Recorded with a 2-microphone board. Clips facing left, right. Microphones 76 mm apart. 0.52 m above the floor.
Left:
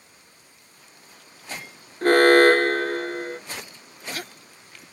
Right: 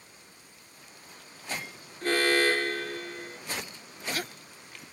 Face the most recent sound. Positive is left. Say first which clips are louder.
# left 11 dB
turn(degrees=50)  # may be behind; listen again after turning